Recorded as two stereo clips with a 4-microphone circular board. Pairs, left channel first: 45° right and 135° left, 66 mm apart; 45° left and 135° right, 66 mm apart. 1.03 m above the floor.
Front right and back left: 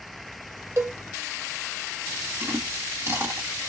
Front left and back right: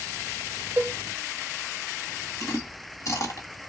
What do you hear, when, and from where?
0.8 s a cowbell: 175° left, 0.7 m
2.4 s chewing: 80° left, 1.6 m